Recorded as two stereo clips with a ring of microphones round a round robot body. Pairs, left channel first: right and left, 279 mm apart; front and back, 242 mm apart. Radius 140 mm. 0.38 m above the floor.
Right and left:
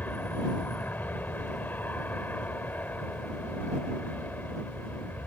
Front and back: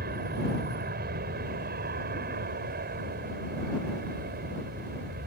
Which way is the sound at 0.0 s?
170° right.